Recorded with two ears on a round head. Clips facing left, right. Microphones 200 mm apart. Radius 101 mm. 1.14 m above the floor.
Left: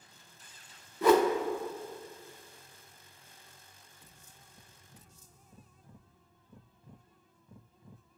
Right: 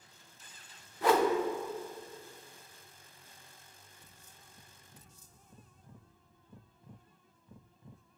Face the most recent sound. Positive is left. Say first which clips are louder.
# left 4 dB
turn(degrees=90)